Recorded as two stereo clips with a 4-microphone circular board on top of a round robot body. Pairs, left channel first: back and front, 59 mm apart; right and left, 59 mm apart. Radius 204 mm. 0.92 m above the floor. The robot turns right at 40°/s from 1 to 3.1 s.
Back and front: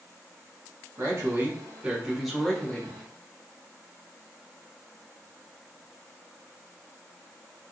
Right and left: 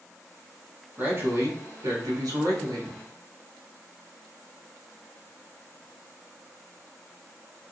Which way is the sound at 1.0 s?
35° left.